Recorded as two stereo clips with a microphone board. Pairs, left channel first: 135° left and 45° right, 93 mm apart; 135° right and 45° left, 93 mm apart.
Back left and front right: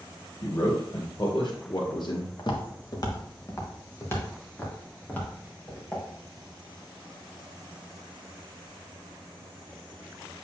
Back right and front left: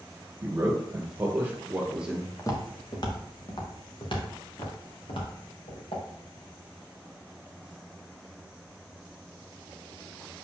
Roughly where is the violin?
I don't hear a violin.